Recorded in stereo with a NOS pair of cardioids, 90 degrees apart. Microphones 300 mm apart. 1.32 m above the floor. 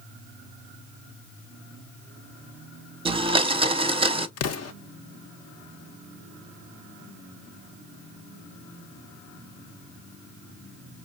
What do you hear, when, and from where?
3.0 s a blender: 20° right, 0.6 m
4.4 s an explosion: 55° left, 0.6 m